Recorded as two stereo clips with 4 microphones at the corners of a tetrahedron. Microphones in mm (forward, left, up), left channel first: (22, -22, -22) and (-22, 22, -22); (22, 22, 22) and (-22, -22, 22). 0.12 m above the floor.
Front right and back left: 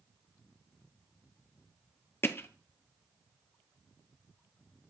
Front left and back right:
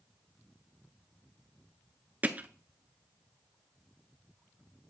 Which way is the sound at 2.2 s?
80° right.